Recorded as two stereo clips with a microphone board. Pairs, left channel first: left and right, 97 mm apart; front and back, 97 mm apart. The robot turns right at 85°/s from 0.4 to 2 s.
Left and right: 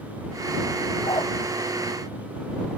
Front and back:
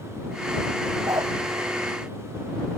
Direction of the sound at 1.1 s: 120° left.